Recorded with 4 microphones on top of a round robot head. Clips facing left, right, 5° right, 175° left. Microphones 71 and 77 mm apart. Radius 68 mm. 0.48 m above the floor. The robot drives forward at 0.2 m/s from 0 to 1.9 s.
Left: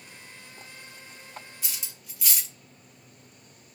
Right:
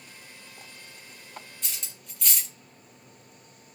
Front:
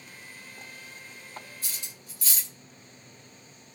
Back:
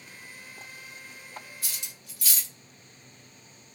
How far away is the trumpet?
No trumpet in this recording.